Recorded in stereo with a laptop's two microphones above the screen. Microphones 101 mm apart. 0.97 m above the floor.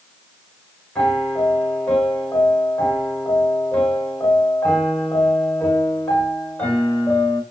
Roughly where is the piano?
Centre.